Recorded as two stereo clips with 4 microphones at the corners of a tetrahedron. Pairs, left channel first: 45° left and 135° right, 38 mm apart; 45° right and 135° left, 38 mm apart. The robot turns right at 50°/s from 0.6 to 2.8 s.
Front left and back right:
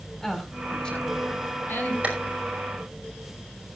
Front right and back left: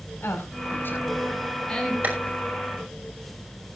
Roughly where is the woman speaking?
Ahead right.